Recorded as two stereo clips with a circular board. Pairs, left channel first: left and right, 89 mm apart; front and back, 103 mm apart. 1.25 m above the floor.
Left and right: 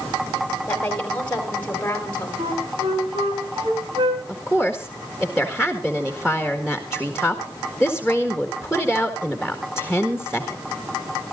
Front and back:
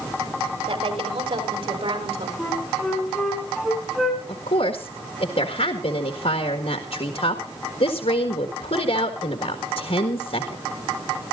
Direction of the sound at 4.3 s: 5° right.